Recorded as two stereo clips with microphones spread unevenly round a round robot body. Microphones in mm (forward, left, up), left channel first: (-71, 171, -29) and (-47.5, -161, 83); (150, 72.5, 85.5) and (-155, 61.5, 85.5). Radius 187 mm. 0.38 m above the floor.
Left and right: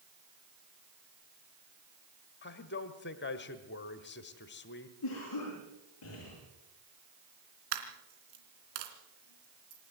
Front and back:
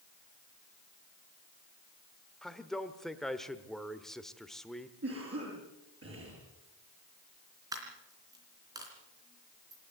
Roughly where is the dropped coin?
Right.